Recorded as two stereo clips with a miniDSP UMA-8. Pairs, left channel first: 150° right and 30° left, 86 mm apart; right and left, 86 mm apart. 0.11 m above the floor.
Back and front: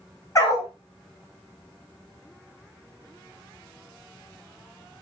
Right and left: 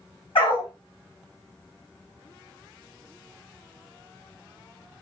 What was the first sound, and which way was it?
A dog barking, 100° right.